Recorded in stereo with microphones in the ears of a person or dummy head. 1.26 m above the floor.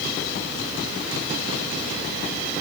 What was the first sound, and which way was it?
Only background noise.